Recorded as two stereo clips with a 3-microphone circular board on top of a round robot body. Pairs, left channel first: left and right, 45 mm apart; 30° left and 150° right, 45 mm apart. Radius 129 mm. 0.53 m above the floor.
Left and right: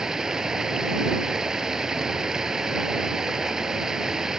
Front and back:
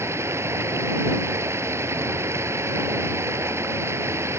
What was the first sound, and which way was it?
Running water, 170° right.